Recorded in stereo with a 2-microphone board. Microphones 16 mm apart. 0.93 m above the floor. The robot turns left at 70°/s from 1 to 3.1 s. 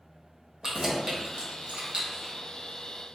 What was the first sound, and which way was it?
Keys jangling, 25° right (ahead or behind).